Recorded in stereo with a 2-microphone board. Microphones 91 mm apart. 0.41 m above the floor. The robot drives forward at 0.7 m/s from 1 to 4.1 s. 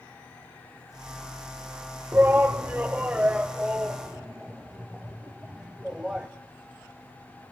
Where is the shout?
25° right (ahead or behind), 0.9 m; by 6.3 s 10° right (ahead or behind), 1.9 m.